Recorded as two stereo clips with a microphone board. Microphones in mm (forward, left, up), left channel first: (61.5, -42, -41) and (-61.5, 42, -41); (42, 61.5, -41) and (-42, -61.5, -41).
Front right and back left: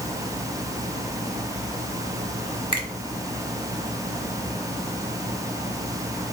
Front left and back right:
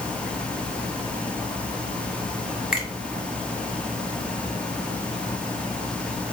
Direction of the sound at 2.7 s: 155° left.